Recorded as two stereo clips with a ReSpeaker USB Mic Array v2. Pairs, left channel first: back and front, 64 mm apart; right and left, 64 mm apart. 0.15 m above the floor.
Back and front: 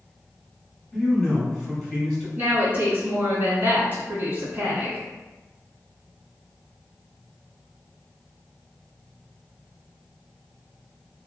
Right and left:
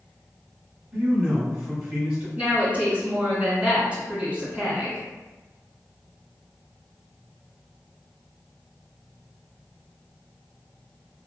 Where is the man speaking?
105° left, 1.6 m.